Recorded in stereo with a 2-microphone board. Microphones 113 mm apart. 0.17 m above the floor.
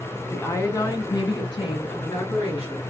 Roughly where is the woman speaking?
Centre.